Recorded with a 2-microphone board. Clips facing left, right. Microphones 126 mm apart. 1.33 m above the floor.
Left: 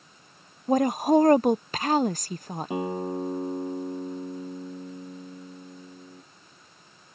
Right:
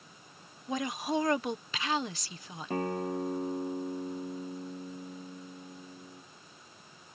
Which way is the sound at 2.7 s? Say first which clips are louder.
Left 2 dB; 10° left (ahead or behind).